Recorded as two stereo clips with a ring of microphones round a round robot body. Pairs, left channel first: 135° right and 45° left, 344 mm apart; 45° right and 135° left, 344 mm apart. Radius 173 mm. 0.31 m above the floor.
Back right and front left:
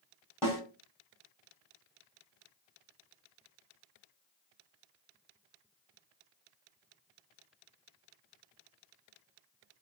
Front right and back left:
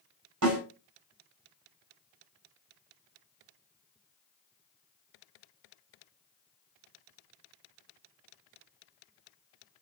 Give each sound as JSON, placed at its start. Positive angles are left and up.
{"t": 0.4, "sound": "a snare drum", "azimuth_deg": 125, "distance_m": 1.8}